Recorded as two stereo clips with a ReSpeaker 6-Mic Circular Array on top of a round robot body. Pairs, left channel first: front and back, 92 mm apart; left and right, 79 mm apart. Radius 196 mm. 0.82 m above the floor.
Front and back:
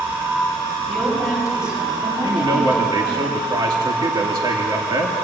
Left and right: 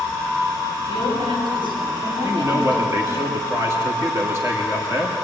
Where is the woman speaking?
95° right, 6.5 m; by 3.2 s 115° right, 7 m.